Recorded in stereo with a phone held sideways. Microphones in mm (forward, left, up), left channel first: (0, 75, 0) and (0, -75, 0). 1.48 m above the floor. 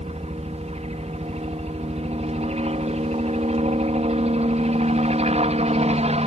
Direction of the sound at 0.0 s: 45° right (ahead or behind).